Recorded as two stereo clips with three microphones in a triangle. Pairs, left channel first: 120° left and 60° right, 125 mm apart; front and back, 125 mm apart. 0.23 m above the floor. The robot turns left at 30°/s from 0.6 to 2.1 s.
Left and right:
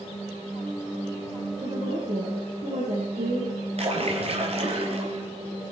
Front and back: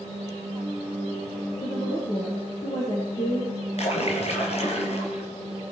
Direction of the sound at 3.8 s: 25° right.